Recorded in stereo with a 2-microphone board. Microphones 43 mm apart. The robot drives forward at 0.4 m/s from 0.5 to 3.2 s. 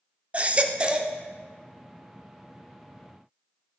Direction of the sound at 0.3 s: 30° right (ahead or behind).